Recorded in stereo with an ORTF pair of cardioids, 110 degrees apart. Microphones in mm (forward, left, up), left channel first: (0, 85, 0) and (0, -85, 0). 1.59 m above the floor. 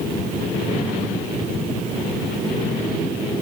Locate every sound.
Only background noise.